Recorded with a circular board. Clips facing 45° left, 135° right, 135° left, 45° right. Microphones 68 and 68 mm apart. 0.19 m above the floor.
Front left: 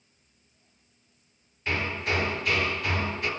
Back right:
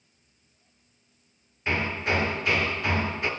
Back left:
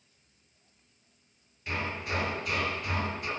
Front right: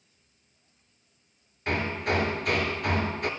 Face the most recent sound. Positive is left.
turn(degrees=-75)